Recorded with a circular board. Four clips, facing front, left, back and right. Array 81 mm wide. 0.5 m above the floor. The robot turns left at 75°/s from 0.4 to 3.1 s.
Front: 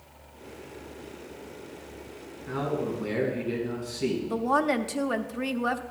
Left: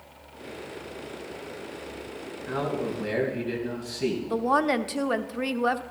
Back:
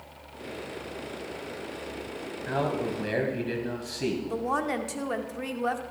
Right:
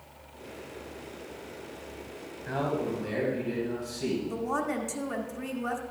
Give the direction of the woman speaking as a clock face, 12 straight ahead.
10 o'clock.